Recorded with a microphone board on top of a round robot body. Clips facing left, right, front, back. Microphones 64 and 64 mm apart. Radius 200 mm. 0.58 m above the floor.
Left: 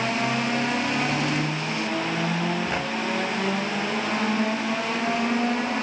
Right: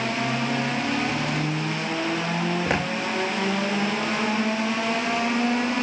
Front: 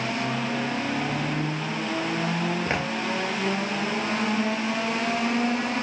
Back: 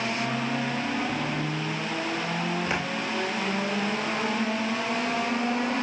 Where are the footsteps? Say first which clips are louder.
Right 3 dB, front 2 dB; 55° right, 0.8 m.